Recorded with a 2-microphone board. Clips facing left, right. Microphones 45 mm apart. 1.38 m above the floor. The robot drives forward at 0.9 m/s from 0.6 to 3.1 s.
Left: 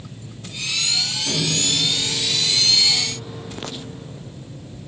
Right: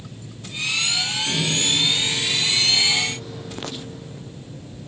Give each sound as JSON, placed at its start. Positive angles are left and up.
{"t": 1.3, "sound": "a microwave", "side_deg": 35, "distance_m": 1.8}